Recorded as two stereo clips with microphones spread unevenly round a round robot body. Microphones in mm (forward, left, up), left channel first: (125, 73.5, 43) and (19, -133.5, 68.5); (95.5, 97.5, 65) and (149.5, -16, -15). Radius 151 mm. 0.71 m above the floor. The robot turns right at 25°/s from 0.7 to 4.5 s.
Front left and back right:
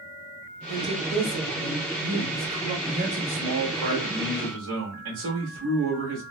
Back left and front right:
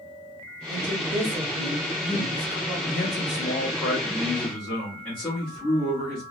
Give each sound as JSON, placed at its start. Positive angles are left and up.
{"t": 0.7, "sound": "a woman speaking", "azimuth_deg": -110, "distance_m": 1.7}
{"t": 2.9, "sound": "a man speaking", "azimuth_deg": 175, "distance_m": 1.0}